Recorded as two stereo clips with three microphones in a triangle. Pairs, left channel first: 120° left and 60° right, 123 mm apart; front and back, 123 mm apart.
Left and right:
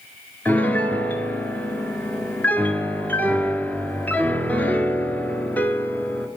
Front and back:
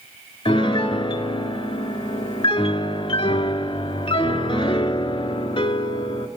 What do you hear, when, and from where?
0.5 s a piano: 45° left, 0.6 m